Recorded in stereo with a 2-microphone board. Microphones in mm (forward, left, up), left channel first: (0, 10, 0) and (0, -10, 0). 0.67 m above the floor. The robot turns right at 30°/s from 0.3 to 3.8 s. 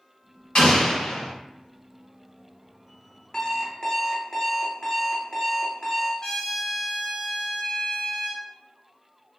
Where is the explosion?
55° left (ahead or behind), 1.0 m; by 1.3 s 65° left (ahead or behind), 1.0 m.